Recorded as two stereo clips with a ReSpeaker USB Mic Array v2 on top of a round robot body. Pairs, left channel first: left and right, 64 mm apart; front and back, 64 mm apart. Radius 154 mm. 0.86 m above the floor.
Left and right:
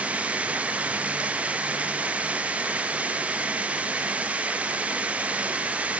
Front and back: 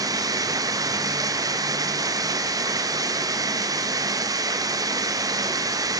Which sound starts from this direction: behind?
Running water, at 0.0 s.